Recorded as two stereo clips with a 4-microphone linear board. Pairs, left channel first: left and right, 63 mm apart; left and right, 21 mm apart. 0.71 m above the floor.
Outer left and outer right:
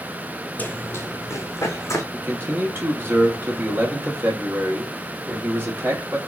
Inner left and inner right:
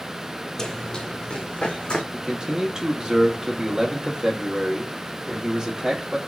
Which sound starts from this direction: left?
Running footsteps, at 0.6 s.